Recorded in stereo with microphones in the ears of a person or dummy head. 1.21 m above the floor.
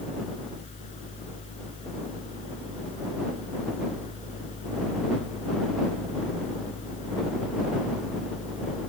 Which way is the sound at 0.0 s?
45° left (ahead or behind).